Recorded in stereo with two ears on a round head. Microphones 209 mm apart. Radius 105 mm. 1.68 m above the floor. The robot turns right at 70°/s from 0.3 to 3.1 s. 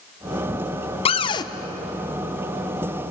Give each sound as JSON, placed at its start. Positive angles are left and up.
{"t": 1.1, "sound": "a cupboard door", "side_deg": 25, "distance_m": 0.6}